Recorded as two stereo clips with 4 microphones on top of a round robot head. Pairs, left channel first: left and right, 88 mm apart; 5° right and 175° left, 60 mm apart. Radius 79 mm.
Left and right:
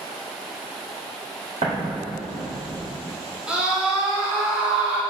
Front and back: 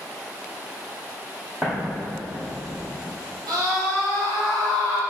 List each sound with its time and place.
1.6 s an explosion: 110° right, 1.6 m
3.5 s a scream: 170° right, 2 m